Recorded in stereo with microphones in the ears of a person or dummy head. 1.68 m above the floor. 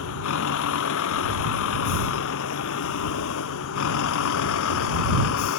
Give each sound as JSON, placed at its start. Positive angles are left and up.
{"t": 0.0, "sound": "a vehicle", "side_deg": 75}